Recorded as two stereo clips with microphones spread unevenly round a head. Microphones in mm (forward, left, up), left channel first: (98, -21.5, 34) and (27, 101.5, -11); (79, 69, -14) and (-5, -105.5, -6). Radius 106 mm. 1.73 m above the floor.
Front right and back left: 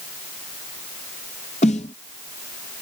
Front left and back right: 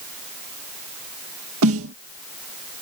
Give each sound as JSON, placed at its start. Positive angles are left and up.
{"t": 1.6, "sound": "a snare drum", "azimuth_deg": -115}